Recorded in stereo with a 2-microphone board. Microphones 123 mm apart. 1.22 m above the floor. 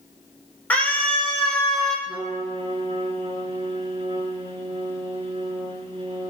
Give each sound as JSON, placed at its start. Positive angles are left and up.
{"t": 0.7, "sound": "a scream", "side_deg": 10, "distance_m": 4.5}
{"t": 2.1, "sound": "a trumpet", "side_deg": -50, "distance_m": 6.0}